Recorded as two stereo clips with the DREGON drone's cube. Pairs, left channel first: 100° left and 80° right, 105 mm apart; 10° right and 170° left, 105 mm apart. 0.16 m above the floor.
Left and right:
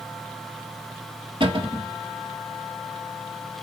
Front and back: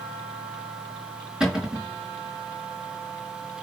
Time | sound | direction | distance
1.4 | a cupboard door | 110° right | 3.5 m